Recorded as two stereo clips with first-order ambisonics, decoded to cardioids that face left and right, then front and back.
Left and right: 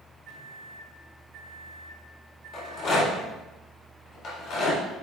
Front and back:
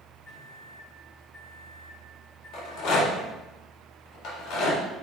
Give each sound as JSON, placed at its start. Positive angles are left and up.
{"t": 0.3, "sound": "a microwave", "azimuth_deg": -55, "distance_m": 1.8}
{"t": 2.5, "sound": "a rattle", "azimuth_deg": 35, "distance_m": 2.0}